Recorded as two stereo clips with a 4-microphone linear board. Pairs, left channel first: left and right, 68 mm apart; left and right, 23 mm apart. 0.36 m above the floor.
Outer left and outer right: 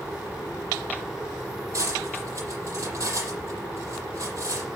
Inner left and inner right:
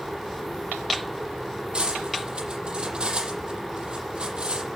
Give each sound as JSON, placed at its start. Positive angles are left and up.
{"t": 1.7, "sound": "cutlery clinking", "side_deg": -50, "distance_m": 7.5}